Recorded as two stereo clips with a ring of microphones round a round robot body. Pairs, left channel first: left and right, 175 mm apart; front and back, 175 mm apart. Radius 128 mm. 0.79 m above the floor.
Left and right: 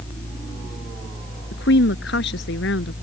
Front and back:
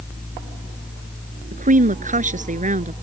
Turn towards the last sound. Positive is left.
turn(degrees=135)